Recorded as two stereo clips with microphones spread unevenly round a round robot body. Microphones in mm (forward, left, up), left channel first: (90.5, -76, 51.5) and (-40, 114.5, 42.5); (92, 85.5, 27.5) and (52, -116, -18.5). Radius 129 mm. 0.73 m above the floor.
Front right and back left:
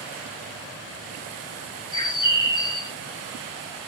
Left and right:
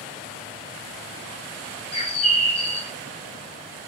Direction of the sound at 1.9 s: 15° left.